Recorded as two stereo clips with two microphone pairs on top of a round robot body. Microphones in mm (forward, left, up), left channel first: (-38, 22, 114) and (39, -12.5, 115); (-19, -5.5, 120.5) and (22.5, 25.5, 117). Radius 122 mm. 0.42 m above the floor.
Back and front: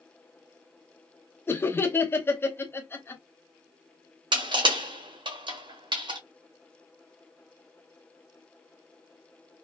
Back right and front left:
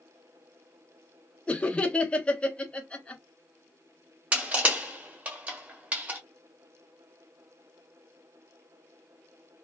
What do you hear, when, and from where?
1.5 s laughter: 165° left, 0.8 m
4.3 s crushing: 20° right, 1.3 m